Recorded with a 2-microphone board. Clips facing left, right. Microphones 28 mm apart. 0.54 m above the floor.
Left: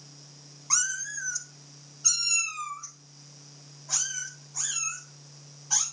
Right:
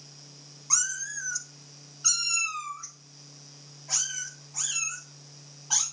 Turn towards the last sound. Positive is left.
turn(degrees=-65)  # may be behind; listen again after turning